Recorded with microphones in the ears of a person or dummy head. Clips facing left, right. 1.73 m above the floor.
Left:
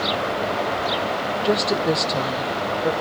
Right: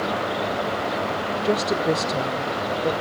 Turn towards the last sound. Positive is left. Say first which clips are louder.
# left 1 dB
turn(degrees=0)  # may be behind; listen again after turning